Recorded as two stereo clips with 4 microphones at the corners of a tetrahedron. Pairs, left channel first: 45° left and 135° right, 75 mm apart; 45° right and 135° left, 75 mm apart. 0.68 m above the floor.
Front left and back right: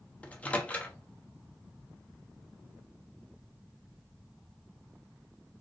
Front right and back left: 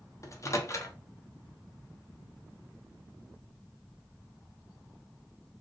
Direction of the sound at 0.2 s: 25° right.